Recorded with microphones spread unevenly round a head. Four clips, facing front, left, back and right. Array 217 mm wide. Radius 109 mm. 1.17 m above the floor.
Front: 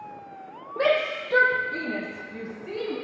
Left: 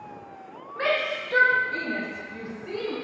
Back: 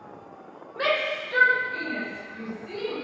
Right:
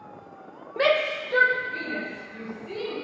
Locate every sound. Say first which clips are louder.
0.8 s a shout: right 4 dB, front 3 dB; 50° right, 0.9 m; by 3.0 s 30° left, 3 m